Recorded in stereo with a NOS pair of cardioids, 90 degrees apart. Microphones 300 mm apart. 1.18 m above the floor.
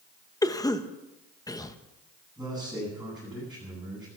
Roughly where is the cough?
Ahead.